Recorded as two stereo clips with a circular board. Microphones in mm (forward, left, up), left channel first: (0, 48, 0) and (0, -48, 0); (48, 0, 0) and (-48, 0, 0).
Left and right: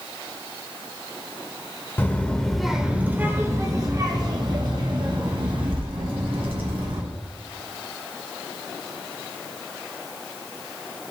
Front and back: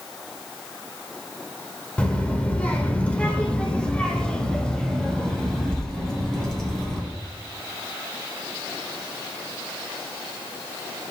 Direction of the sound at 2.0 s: 60° left.